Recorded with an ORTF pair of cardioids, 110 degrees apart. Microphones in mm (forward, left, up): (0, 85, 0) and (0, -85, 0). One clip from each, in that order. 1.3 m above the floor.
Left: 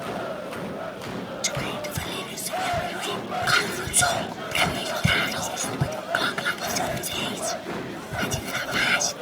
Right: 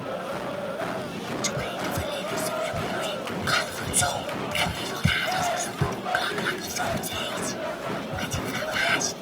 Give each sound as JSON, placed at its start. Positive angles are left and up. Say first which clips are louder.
{"t": 1.4, "sound": "whispering", "louder": "left 1 dB", "azimuth_deg": 15, "distance_m": 0.7}